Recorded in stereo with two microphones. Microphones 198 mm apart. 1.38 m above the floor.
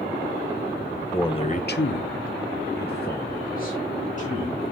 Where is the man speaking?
15° left (ahead or behind), 1.3 m; by 4.6 s 40° left (ahead or behind), 4.5 m.